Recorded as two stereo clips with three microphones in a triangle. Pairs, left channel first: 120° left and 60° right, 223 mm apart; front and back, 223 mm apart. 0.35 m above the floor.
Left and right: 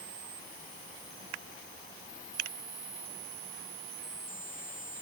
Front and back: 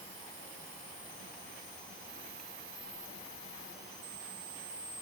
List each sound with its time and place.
Only background noise.